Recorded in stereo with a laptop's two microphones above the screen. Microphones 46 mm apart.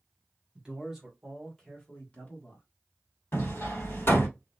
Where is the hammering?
55° left (ahead or behind), 1.4 m.